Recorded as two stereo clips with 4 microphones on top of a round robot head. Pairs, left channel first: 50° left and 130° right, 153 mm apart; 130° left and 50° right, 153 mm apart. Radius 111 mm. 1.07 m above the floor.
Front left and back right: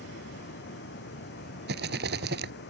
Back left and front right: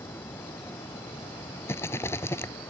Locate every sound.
0.0 s running water: 55° left
1.7 s a rattle: 150° right